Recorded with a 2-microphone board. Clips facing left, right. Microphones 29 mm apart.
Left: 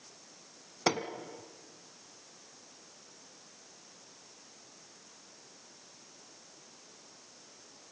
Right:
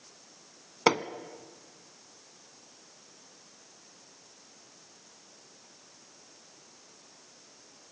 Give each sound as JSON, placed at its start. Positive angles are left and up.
{"t": 0.9, "sound": "hammering", "side_deg": -30, "distance_m": 1.1}